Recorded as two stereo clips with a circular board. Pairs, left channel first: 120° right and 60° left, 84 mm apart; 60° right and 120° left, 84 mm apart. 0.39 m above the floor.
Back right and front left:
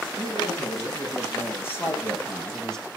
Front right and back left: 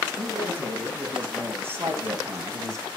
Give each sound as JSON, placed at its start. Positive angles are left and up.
{"t": 0.2, "sound": "a man speaking", "azimuth_deg": -170, "distance_m": 5.0}